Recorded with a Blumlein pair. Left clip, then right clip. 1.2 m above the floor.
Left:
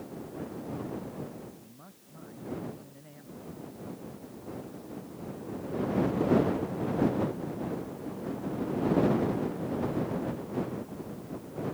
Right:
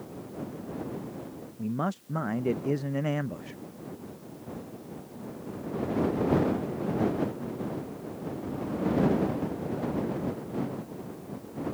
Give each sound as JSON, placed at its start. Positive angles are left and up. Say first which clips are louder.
{"t": 1.6, "sound": "a man speaking", "louder": "right 21 dB", "azimuth_deg": -40}